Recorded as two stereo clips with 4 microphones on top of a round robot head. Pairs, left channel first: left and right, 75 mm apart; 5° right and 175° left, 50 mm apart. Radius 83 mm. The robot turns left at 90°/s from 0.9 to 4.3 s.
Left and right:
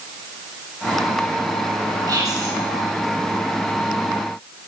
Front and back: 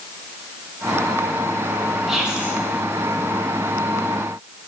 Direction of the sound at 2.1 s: 100° right.